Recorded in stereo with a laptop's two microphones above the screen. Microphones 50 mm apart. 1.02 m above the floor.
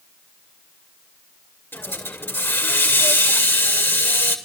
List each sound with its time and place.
1.7 s a hiss: 50° left (ahead or behind), 1.7 m